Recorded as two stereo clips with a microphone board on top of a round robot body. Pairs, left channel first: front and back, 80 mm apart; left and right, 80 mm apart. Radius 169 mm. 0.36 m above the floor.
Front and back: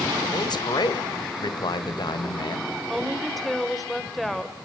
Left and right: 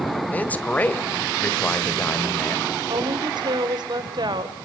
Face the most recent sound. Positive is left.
turn(degrees=-85)